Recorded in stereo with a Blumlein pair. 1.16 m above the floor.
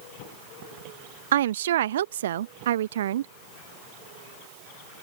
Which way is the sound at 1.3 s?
60° right.